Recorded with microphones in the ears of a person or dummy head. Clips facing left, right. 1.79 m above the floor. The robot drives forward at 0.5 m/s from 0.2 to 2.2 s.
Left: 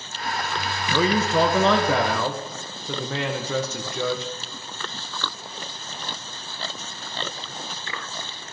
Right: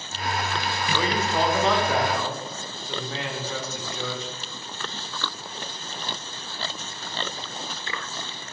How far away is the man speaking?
About 1.6 m.